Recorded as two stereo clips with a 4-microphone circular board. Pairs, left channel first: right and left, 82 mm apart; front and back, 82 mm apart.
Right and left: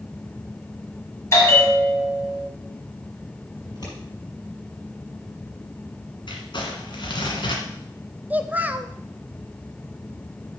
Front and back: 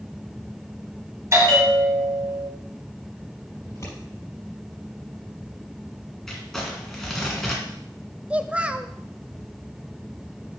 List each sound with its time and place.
1.3 s a bell: 140° right, 2 m
3.6 s scissors: 55° right, 5 m
6.3 s crumpling: 85° right, 1.9 m
8.3 s a child speaking: 125° left, 0.5 m